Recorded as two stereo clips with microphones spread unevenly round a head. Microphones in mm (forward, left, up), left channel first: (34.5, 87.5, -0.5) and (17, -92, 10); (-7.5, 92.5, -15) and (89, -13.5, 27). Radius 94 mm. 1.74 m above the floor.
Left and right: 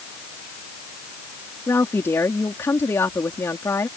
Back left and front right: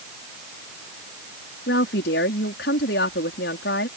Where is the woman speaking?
165° left.